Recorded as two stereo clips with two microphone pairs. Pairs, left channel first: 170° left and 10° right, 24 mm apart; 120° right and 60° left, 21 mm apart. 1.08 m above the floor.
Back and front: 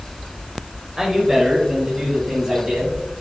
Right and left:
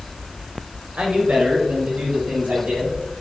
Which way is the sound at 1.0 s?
60° left.